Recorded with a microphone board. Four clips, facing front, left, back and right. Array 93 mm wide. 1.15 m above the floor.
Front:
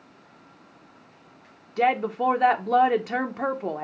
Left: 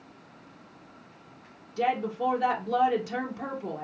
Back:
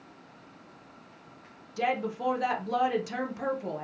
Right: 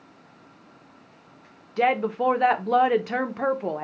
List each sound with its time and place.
1.8 s a woman speaking: 55° right, 0.8 m